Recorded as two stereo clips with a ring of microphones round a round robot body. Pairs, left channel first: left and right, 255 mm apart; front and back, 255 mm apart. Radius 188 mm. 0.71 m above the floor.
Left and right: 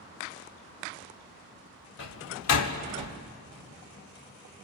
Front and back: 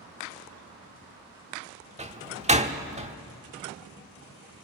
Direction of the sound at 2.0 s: 115° left.